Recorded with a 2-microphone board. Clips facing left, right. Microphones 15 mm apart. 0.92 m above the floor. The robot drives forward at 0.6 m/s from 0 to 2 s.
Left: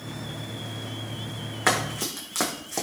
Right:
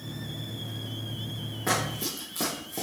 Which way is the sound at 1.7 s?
70° left (ahead or behind).